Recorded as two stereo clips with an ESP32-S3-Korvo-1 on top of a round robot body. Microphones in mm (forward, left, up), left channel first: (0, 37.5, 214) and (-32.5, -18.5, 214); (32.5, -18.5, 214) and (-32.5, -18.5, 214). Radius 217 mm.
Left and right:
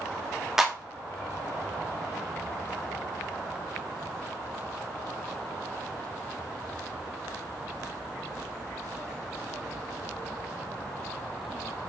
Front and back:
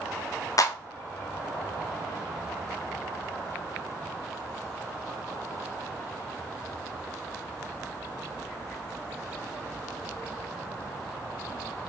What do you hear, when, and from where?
0.6 s a clap: 40° right, 0.6 m